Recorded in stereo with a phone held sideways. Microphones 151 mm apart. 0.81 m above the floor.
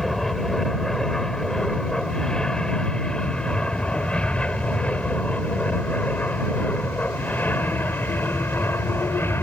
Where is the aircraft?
Centre (ahead or behind); by 9.4 s 15° left (ahead or behind).